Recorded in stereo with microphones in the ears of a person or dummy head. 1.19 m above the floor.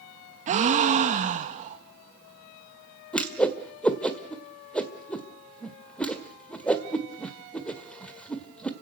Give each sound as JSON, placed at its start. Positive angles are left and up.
{"t": 0.5, "sound": "a gasp", "side_deg": -40, "distance_m": 2.0}
{"t": 3.1, "sound": "a whoosh", "side_deg": 5, "distance_m": 1.7}